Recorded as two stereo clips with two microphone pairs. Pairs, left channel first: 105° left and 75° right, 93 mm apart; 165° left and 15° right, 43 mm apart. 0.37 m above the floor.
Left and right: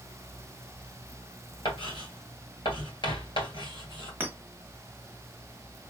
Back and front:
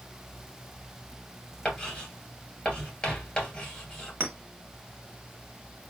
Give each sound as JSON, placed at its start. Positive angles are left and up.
{"t": 1.6, "sound": "writing", "azimuth_deg": 100, "distance_m": 2.5}
{"t": 4.2, "sound": "a clink", "azimuth_deg": -5, "distance_m": 1.1}